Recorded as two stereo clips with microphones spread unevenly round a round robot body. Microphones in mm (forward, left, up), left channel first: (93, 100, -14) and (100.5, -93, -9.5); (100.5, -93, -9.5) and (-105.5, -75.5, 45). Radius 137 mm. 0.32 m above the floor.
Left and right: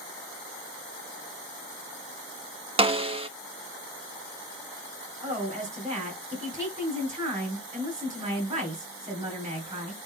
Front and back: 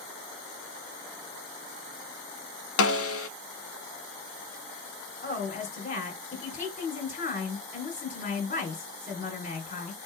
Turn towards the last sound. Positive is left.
turn(degrees=-30)